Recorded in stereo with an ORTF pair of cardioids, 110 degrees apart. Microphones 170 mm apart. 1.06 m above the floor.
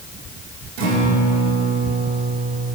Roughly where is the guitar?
Right.